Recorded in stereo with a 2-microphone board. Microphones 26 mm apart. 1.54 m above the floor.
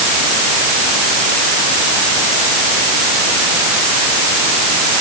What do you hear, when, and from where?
Only background noise.